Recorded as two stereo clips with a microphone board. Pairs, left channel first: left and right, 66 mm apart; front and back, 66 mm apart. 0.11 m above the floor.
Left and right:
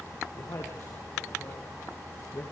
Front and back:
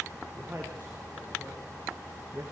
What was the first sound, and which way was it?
A man speaking, 115° left.